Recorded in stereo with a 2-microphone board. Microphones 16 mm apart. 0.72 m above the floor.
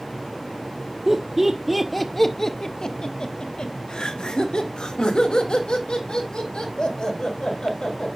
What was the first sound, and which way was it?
Laughter, 30° right (ahead or behind).